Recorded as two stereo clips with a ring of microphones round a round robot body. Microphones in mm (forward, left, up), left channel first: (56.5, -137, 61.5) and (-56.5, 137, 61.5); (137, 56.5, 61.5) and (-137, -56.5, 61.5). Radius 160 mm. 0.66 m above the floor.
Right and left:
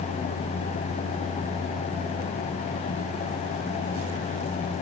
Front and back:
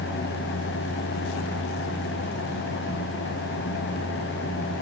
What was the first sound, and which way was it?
Only background noise.